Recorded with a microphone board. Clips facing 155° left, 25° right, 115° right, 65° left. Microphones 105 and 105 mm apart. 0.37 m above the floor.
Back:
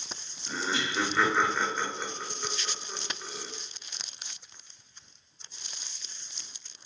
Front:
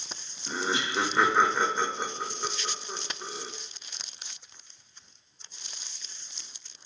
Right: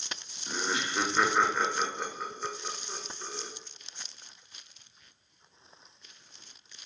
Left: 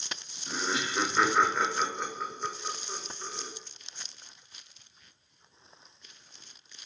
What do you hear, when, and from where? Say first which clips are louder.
0.5 s laughter: front 2 dB, even; 25° right, 0.8 m